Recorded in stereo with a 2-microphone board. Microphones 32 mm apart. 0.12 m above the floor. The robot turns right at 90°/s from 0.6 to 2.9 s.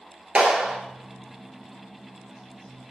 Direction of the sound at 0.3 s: 35° right (ahead or behind).